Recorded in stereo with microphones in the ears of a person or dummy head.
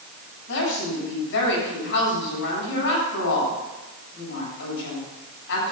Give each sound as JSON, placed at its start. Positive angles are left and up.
{"t": 0.5, "sound": "a woman speaking", "side_deg": 65, "distance_m": 8.0}